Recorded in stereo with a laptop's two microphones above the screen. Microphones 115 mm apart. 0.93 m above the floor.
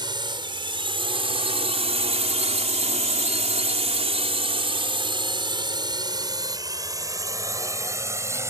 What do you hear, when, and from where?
0.0 s a drone: 40° right (ahead or behind); by 8.5 s 25° right (ahead or behind)